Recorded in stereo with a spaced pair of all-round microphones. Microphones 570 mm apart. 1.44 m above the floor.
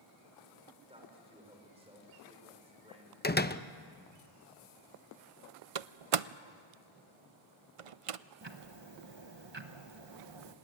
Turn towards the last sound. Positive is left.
turn(degrees=-50)  # may be behind; listen again after turning